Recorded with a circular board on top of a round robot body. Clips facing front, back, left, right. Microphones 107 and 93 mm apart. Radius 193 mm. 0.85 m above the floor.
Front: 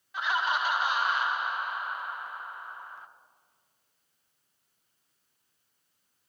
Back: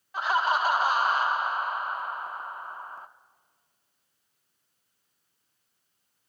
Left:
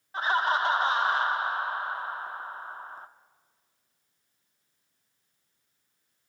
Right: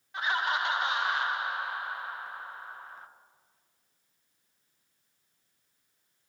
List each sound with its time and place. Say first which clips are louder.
0.1 s laughter: back 4 dB, left 4 dB; 140° left, 1.0 m